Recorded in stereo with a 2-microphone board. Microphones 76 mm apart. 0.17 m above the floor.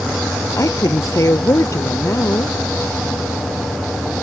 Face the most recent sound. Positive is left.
turn(degrees=40)  # may be behind; listen again after turning